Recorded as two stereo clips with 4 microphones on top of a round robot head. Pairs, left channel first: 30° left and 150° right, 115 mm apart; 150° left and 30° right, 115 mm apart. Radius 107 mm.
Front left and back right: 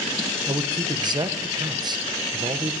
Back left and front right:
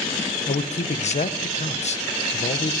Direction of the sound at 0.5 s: 160° left.